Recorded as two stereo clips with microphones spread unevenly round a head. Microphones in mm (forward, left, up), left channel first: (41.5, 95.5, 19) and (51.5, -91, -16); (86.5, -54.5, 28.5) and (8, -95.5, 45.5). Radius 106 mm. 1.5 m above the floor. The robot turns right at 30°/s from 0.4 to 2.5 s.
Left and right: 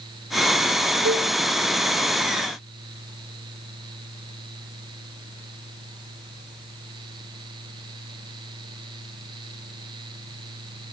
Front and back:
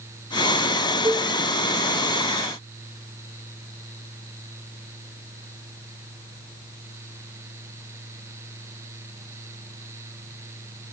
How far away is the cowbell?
About 5 m.